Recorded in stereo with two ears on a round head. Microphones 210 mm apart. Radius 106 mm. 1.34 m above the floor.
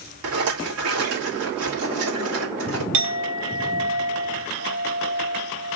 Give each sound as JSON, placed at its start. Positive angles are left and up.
{"t": 0.2, "sound": "a rattle", "side_deg": -70, "distance_m": 2.0}
{"t": 2.9, "sound": "a clink", "side_deg": -75, "distance_m": 1.1}